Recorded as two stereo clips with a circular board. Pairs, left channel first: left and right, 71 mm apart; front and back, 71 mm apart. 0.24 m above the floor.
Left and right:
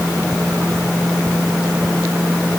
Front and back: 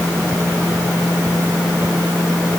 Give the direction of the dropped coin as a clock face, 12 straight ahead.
No dropped coin in this recording.